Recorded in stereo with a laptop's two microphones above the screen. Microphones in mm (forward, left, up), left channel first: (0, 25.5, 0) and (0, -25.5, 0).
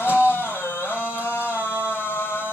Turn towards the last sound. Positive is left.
turn(degrees=45)  # may be behind; listen again after turning